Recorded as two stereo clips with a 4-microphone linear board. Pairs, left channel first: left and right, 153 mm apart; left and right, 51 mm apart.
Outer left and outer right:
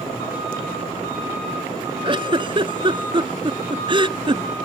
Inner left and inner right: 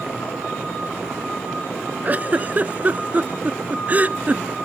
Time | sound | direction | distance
2.0 | a giggle | 35° right (ahead or behind) | ?